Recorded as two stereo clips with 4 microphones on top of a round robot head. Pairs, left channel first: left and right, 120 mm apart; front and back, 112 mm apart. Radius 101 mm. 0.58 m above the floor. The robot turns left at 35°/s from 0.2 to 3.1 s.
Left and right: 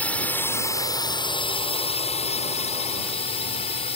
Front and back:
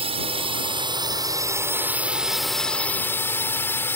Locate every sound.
0.0 s a drone: 165° left; by 4.0 s 65° left